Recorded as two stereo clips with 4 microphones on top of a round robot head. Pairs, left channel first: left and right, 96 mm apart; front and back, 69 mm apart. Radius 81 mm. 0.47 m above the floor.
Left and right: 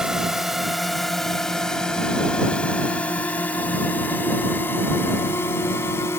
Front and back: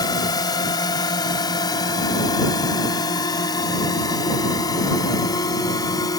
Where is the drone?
5° right; by 6.2 s 20° left.